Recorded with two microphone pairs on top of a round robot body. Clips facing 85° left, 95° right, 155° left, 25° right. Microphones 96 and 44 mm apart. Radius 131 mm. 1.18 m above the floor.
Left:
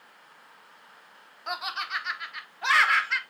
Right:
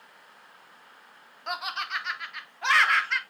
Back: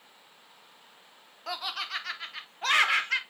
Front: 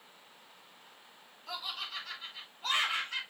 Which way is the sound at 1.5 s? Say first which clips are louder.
Even, back 6 dB; 175° left.